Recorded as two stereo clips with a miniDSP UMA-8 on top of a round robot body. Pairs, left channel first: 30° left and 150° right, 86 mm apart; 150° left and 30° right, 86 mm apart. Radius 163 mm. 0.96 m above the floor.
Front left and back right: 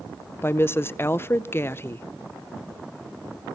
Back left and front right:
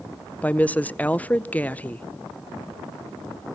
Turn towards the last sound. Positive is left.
turn(degrees=85)